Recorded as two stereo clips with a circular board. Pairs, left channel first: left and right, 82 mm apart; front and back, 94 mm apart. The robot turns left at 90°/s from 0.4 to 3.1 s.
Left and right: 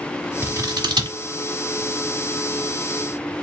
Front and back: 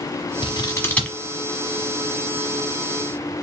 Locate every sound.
0.4 s scissors: 25° right, 1.1 m; by 1.2 s 95° right, 1.1 m